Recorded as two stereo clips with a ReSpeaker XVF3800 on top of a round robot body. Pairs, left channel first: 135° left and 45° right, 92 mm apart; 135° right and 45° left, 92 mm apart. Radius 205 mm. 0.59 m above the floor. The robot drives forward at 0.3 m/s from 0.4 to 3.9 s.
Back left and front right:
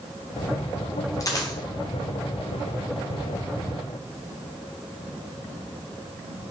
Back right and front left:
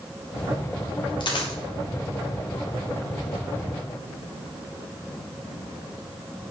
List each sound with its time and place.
1.2 s a dropped coin: 170° right, 0.7 m